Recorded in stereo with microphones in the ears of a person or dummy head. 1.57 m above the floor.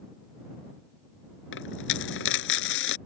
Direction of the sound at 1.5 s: 80° left.